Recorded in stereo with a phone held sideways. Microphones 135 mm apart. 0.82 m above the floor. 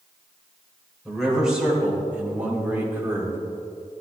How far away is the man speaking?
About 3.5 m.